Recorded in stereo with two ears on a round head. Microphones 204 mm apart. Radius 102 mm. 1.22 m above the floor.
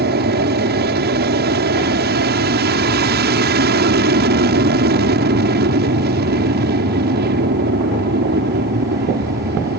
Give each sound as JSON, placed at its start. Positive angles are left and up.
{"t": 0.0, "sound": "an aircraft", "side_deg": -45}